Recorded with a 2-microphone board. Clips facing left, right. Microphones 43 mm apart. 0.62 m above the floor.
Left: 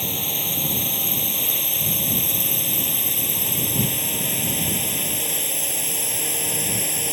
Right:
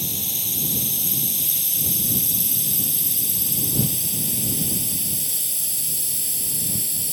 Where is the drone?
35° left (ahead or behind); by 7.1 s 50° left (ahead or behind).